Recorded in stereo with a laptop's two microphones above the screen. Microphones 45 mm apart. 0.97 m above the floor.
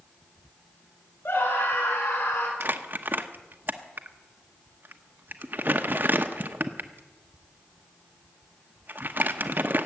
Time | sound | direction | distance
1.2 | a scream | 65° left (ahead or behind) | 4.5 m
2.6 | crumpling | 45° right (ahead or behind) | 1.0 m